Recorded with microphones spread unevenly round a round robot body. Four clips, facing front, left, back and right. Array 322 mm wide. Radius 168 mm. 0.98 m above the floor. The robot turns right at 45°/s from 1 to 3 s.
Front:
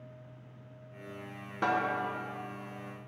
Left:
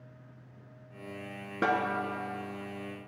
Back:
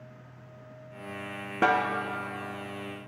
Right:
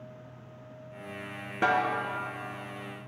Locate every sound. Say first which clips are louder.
1.6 s a snare drum: right 3 dB, back 5 dB; 170° left, 1.0 m; by 1.9 s straight behind, 1.0 m